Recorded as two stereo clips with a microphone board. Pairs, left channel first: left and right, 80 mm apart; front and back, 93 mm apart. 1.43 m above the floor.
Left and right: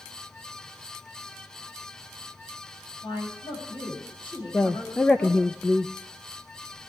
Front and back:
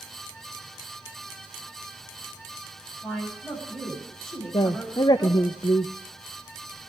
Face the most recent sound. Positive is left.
turn(degrees=15)